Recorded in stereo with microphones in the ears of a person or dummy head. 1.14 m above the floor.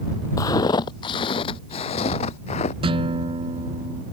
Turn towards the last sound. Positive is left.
turn(degrees=-30)  # may be behind; listen again after turning